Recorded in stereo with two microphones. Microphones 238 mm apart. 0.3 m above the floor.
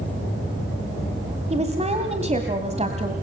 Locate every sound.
1.5 s a woman speaking: 25° right (ahead or behind), 2 m